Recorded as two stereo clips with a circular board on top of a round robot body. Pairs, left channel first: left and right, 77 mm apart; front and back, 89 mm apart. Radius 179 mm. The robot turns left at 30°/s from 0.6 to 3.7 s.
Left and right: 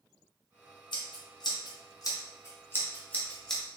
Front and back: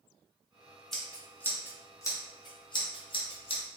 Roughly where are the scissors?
Left.